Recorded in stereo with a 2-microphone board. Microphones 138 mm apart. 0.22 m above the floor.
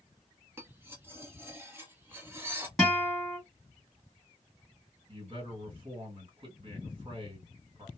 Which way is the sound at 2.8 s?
Centre (ahead or behind).